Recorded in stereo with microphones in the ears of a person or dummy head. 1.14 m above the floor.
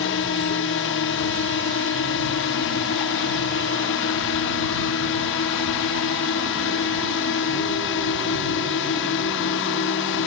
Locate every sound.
0.0 s a drone: 60° left (ahead or behind)